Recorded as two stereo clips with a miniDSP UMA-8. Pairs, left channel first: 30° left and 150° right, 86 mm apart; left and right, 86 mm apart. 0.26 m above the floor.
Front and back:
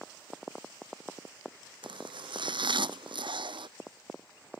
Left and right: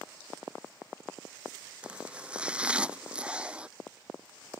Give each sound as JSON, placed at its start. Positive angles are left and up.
{"t": 1.8, "sound": "chopping", "azimuth_deg": -170}